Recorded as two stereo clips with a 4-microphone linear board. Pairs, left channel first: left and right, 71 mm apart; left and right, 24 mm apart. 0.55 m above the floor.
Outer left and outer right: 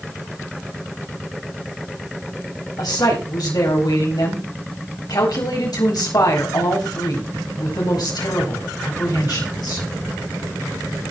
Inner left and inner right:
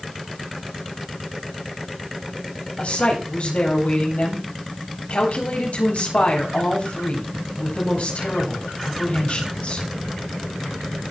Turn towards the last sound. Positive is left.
turn(degrees=70)  # may be behind; listen again after turning